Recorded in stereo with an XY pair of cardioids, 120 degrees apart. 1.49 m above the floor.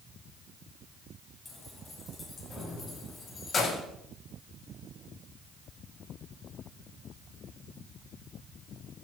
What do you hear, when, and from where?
1.4 s keys jangling: 25° left, 9 m; by 3.8 s 40° left, 7.5 m